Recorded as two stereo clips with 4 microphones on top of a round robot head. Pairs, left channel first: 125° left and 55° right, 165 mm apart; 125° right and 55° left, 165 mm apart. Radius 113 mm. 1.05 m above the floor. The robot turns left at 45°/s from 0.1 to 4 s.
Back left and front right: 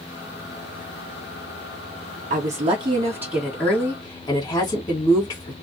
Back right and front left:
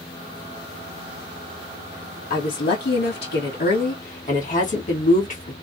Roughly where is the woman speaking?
Right.